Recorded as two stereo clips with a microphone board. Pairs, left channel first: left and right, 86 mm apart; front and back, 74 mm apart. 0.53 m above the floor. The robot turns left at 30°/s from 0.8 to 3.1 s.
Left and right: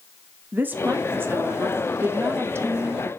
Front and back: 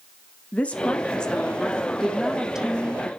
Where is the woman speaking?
50° right, 1.0 m; by 3.1 s 120° right, 1.0 m.